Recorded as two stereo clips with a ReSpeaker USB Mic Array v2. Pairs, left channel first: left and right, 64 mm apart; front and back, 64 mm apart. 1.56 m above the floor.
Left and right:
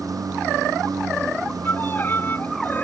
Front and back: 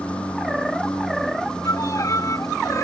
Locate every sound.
0.0 s a lawn mower: 75° right; by 2.9 s 85° right
1.6 s a violin: 35° left